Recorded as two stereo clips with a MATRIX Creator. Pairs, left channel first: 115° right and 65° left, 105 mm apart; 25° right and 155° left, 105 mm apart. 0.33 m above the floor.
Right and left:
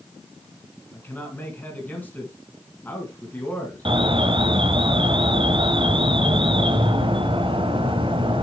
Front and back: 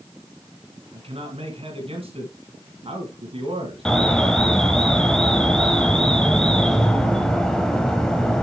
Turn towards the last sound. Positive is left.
turn(degrees=60)